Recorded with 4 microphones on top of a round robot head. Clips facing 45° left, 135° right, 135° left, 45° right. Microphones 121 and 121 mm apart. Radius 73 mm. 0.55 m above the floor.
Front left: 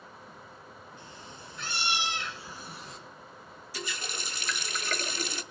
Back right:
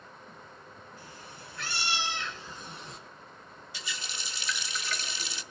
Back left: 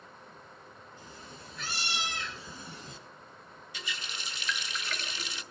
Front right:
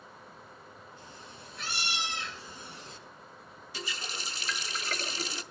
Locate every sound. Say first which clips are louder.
1.0 s a cat meowing: front left 1 dB, even; 115° left, 4 m; by 3.0 s 140° left, 1.5 m
3.7 s a running tap: front left 5 dB, front right 3 dB; 5° left, 0.6 m